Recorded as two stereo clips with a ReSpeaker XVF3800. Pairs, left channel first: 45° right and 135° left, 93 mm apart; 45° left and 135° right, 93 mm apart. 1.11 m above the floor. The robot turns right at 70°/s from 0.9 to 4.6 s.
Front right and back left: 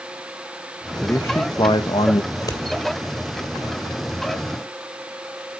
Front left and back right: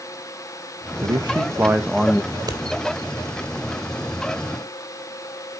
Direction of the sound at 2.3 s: 105° right.